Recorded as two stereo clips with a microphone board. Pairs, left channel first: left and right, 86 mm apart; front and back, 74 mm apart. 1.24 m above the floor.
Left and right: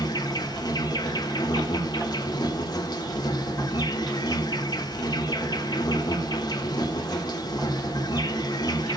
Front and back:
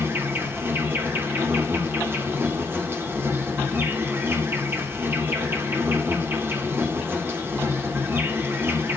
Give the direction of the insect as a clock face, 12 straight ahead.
8 o'clock.